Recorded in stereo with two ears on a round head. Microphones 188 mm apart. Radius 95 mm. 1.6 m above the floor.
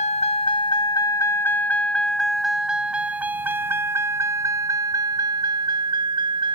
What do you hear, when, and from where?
0.0 s a vehicle: 35° left (ahead or behind); by 6.5 s 25° right (ahead or behind)